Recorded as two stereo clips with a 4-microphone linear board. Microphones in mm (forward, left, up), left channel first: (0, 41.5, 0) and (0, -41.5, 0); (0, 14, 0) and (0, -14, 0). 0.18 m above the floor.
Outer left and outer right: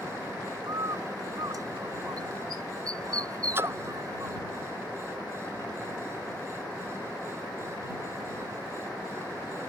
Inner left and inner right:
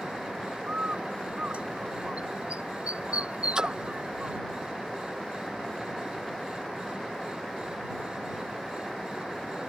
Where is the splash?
30° right (ahead or behind).